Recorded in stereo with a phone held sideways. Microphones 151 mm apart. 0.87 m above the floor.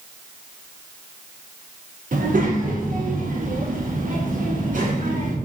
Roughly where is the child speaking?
Right.